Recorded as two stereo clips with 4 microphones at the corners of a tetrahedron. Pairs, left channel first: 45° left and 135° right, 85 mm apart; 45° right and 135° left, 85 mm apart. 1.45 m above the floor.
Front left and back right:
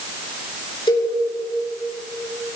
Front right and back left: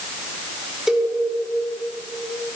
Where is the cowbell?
50° left, 2.5 m.